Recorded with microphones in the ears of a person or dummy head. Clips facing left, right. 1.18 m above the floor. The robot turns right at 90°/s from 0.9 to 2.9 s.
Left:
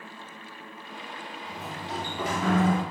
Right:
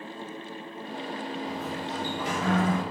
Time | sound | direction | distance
1.5 | a sliding door | straight ahead | 3 m